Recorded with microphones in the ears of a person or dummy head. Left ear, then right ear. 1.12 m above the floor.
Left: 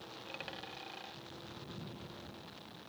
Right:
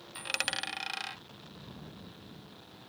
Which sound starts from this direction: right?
A dropped coin, at 0.1 s.